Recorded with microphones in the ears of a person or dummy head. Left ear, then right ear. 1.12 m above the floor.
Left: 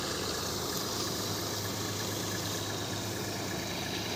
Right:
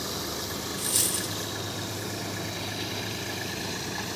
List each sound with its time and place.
0.8 s a dropped coin: 45° right (ahead or behind), 1.0 m